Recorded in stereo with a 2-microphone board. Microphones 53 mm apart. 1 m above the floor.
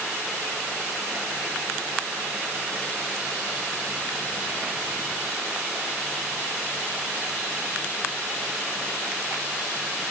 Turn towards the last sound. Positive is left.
No sound to turn to.